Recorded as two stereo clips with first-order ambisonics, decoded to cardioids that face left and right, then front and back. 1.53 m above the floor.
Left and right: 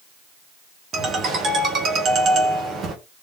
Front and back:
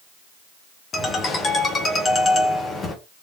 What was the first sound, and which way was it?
A ringtone, 55° right.